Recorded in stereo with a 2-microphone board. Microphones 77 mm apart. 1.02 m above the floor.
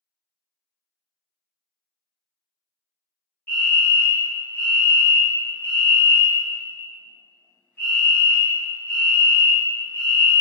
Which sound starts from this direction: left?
A fire alarm, at 3.5 s.